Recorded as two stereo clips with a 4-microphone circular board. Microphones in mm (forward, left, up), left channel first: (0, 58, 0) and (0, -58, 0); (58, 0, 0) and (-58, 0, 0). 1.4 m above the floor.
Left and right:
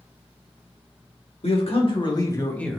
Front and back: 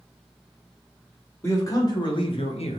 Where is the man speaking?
65° left, 1.0 m; by 2.8 s straight ahead, 0.6 m.